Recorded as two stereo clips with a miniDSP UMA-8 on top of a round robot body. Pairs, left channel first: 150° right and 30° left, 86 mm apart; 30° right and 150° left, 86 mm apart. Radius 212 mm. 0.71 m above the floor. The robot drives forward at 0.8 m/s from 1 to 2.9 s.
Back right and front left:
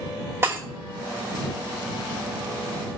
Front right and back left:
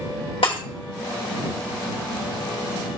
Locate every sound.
0.4 s breaking glass: 30° right, 2.5 m